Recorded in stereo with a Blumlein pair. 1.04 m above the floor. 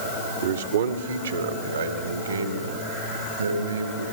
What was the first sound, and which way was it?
A man speaking, 65° right.